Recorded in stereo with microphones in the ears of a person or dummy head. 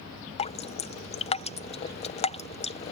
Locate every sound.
0.4 s dripping: 35° left (ahead or behind)